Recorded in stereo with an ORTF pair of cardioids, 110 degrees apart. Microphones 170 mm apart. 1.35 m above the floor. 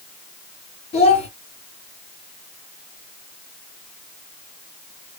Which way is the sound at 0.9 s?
40° left.